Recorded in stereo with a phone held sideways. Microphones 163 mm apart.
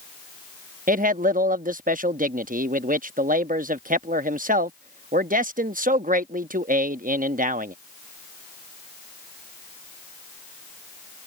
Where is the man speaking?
55° right (ahead or behind).